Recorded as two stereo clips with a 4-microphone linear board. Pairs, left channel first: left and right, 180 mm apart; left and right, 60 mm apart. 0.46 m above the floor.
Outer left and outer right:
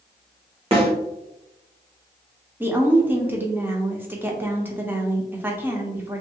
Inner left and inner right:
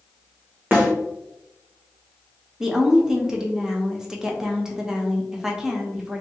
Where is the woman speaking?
10° right (ahead or behind), 0.7 m.